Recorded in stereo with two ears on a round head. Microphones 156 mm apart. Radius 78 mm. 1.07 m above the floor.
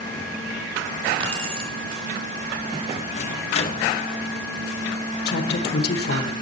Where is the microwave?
40° left (ahead or behind), 0.9 m.